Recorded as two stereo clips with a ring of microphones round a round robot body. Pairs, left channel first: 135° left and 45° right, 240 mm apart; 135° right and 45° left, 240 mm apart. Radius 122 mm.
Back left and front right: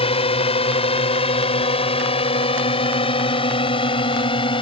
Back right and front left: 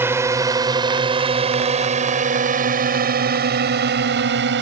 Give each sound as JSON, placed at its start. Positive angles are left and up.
{"t": 0.0, "sound": "a drone", "azimuth_deg": 110}